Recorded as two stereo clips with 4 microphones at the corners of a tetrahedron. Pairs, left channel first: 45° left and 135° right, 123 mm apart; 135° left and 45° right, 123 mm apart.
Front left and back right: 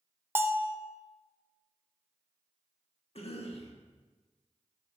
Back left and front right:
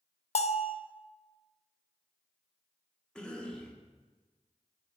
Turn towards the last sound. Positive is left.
turn(degrees=55)